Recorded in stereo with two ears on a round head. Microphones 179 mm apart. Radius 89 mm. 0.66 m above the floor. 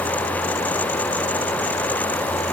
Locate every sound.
Only background noise.